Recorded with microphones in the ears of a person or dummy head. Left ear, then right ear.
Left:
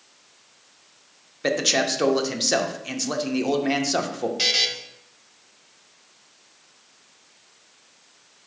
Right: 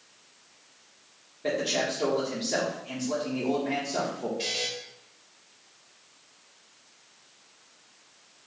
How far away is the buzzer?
About 0.6 m.